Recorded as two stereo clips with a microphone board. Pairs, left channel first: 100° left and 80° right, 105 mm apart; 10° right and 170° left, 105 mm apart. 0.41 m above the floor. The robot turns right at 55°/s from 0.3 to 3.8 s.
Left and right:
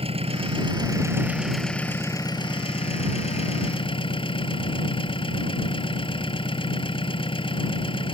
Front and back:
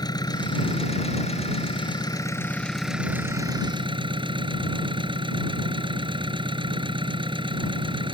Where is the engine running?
60° right; by 8.1 s 135° left.